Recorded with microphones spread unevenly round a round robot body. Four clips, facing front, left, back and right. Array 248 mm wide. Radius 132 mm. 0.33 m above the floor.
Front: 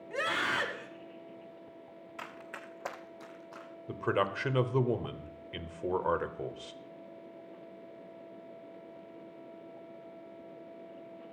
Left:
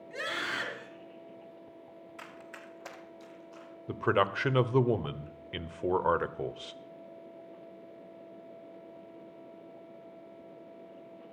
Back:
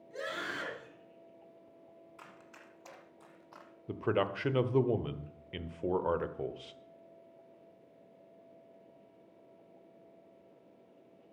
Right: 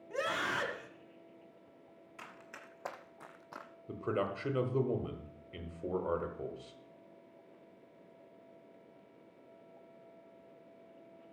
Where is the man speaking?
85° left, 0.9 m.